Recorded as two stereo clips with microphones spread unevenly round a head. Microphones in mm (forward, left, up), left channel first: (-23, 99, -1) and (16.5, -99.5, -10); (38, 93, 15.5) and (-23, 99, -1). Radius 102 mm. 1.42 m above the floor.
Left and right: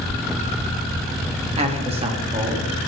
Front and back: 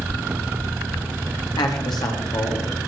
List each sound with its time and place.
1.6 s a man speaking: 15° right, 2 m; by 2.7 s 10° right, 2.5 m